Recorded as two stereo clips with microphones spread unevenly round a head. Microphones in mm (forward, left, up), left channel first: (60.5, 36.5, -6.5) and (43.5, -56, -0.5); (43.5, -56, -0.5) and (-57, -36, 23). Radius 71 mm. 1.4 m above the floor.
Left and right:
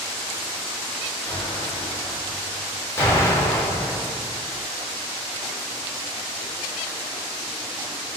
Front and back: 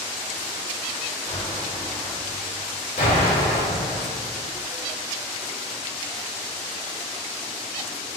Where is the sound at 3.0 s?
15° left, 3 m.